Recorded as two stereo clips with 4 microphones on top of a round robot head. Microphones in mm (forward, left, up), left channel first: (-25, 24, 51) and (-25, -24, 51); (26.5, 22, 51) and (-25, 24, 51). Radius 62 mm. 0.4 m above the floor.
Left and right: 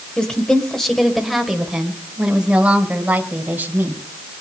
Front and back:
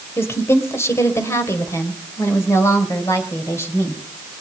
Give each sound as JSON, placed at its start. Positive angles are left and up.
{"t": 0.2, "sound": "a woman speaking", "azimuth_deg": 20, "distance_m": 2.5}